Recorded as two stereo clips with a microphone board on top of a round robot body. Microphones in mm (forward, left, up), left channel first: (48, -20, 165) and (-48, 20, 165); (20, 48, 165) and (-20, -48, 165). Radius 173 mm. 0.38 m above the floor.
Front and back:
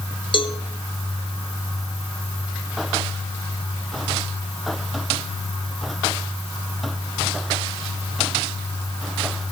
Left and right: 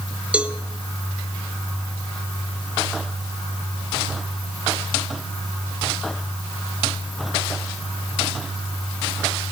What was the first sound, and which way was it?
A cowbell, 35° right.